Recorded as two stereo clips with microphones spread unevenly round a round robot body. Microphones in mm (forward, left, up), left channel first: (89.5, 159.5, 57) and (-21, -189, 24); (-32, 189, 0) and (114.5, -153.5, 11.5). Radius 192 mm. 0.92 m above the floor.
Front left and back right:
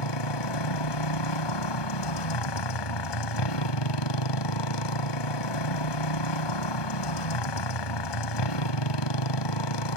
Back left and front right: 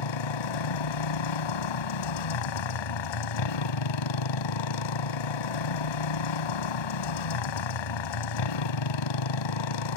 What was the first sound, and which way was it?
A motorcycle, 100° left.